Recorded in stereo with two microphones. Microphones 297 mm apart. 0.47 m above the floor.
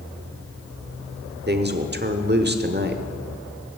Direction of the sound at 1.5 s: 35° right (ahead or behind).